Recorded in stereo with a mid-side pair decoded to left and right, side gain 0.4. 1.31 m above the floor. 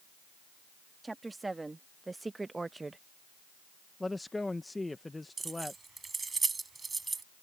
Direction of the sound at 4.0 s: 15° left.